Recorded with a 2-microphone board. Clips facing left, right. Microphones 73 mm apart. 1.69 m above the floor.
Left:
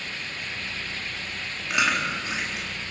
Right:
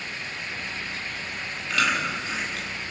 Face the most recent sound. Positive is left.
turn(degrees=20)  # may be behind; listen again after turning